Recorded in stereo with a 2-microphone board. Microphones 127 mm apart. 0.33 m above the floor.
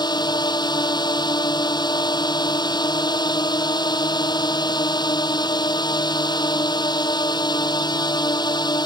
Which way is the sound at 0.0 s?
35° left (ahead or behind).